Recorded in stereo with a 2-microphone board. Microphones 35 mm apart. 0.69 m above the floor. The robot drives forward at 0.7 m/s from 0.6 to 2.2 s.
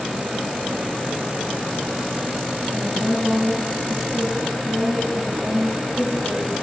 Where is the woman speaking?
5° left (ahead or behind), 1.3 m.